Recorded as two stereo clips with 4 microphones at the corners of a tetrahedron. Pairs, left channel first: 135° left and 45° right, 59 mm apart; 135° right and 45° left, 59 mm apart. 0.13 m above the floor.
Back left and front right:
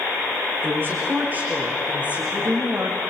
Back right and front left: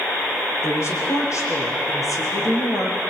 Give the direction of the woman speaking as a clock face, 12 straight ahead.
3 o'clock.